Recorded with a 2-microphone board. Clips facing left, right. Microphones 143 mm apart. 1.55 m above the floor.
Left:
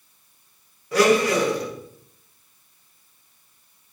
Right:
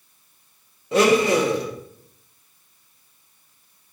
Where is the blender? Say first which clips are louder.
Right 1 dB; 25° right (ahead or behind), 1.3 m.